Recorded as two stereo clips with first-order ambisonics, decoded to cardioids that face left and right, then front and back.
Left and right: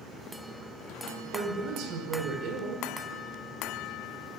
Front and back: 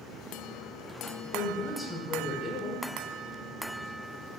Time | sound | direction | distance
1.3 | a woman speaking | 75° right | 1.5 m